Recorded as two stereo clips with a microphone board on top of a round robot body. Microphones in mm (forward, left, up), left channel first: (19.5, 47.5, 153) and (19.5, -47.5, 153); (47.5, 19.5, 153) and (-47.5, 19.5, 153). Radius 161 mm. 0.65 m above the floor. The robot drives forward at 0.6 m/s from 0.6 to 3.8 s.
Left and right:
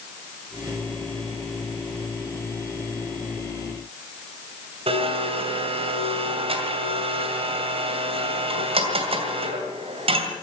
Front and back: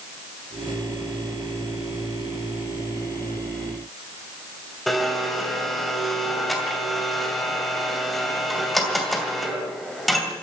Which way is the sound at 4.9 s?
90° right.